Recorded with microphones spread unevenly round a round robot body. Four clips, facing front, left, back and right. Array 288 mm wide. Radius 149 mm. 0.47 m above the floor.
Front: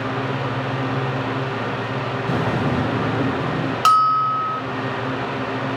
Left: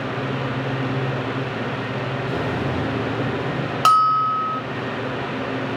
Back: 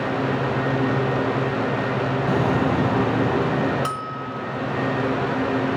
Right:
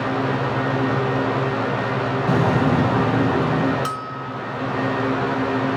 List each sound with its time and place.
2.3 s an explosion: 100° right, 3.5 m
3.9 s a bell: 50° left, 0.5 m